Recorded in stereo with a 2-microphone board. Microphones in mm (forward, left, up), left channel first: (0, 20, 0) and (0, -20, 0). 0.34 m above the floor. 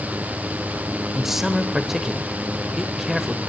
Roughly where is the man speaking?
Centre.